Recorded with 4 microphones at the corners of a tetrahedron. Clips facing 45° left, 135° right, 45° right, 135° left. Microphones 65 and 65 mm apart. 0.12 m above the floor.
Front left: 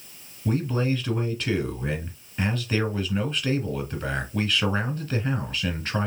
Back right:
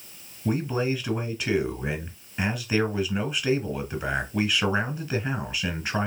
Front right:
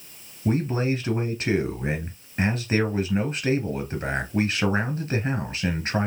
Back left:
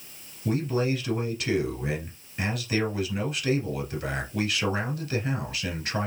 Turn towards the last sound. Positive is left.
turn(degrees=-65)